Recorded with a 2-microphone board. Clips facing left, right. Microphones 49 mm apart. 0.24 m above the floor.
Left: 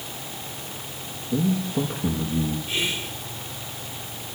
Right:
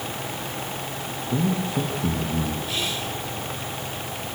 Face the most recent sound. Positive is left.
turn(degrees=20)  # may be behind; listen again after turning